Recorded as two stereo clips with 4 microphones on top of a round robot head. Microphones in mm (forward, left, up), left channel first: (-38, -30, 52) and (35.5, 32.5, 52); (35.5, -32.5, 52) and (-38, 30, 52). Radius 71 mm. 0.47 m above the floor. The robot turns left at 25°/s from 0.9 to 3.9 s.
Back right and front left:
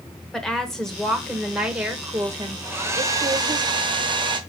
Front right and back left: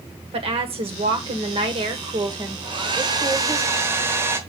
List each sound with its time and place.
0.3 s a woman speaking: 135° left, 1.5 m; by 3.6 s 65° left, 1.5 m
2.6 s a hair dryer: 110° left, 1.3 m; by 4.4 s 75° left, 1.3 m